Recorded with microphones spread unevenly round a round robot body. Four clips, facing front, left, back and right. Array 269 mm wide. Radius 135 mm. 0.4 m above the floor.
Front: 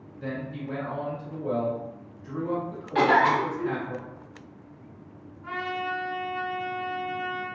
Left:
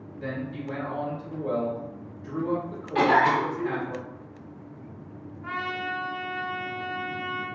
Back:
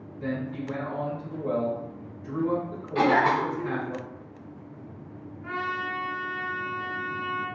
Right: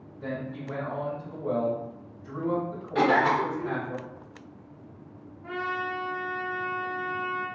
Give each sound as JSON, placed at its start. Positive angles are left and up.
{"t": 0.2, "sound": "a man speaking", "azimuth_deg": 115, "distance_m": 1.5}
{"t": 3.0, "sound": "a cough", "azimuth_deg": 10, "distance_m": 1.2}
{"t": 5.4, "sound": "a trumpet", "azimuth_deg": 100, "distance_m": 1.3}